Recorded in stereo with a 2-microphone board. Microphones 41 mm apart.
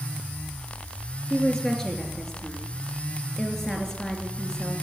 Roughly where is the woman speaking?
Centre.